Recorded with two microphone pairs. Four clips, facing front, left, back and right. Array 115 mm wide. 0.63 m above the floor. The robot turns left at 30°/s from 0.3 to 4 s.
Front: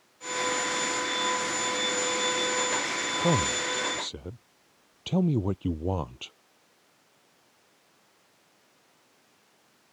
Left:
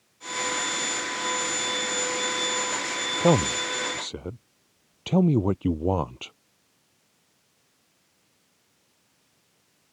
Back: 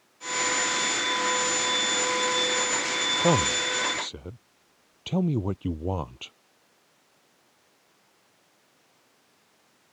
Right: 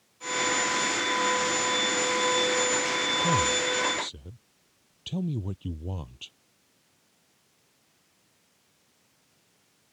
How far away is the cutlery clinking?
I don't hear cutlery clinking.